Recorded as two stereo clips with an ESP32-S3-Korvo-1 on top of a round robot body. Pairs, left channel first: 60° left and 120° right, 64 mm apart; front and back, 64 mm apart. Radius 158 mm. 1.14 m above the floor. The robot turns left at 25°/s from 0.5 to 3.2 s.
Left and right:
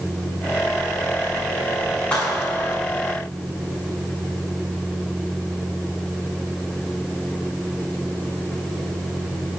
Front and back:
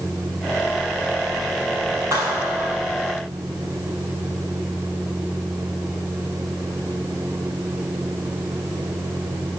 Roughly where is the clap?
Behind left.